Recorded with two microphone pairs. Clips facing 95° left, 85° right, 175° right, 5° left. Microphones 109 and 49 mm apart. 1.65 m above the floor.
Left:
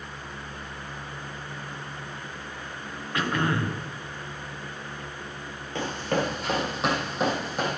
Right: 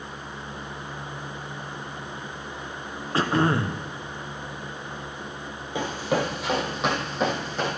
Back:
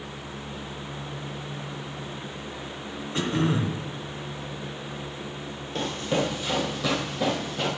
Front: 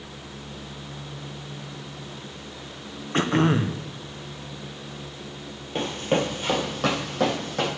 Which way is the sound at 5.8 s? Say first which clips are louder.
Right 2 dB, front 2 dB; 25° right.